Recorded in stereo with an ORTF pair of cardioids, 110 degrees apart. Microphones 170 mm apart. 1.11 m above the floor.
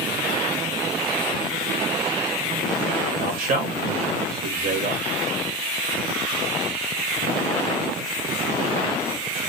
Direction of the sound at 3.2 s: 60° right.